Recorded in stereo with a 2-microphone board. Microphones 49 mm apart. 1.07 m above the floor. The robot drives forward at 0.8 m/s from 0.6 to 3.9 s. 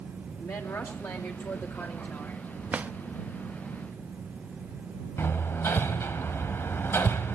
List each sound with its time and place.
0.4 s a woman speaking: 75° left (ahead or behind), 2.5 m; by 2.4 s 55° left (ahead or behind), 3 m
2.7 s a drawer: 30° right (ahead or behind), 0.7 m; by 2.9 s 40° right (ahead or behind), 0.6 m
5.2 s hammering: 55° left (ahead or behind), 1.6 m